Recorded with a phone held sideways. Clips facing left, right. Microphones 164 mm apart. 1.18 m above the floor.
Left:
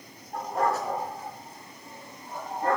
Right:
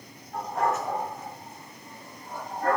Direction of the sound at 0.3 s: 40° left (ahead or behind).